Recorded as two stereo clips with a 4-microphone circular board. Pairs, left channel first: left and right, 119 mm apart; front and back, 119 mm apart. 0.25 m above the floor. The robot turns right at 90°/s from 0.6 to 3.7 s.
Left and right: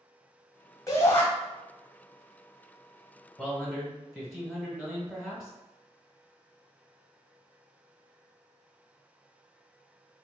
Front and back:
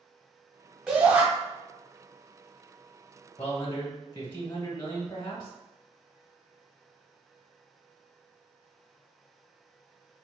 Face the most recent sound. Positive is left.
turn(degrees=-15)